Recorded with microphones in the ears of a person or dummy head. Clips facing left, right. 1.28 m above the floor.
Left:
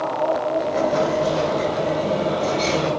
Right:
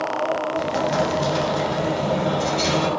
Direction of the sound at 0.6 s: 85° right.